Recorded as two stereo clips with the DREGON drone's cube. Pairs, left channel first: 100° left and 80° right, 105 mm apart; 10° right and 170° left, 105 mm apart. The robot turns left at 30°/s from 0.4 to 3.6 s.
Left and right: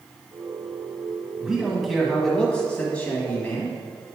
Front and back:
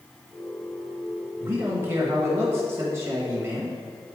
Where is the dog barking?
No dog barking in this recording.